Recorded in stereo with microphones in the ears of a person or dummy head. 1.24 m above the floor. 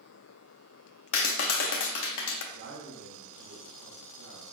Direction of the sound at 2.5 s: 55° right (ahead or behind).